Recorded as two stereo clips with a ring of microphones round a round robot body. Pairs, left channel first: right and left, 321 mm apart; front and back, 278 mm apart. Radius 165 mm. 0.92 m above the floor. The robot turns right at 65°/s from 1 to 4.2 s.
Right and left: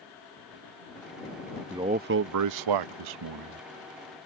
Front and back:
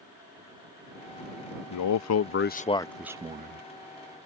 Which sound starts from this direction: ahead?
A man speaking, at 1.7 s.